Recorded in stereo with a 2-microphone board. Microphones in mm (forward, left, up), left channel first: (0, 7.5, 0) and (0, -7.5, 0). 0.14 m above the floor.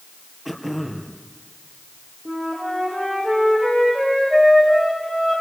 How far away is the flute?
About 10 m.